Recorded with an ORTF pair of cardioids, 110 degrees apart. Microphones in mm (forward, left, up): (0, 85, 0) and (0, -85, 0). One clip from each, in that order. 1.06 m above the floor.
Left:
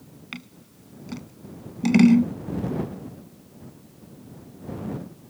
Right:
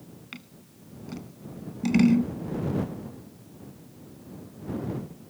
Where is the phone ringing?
No phone ringing in this recording.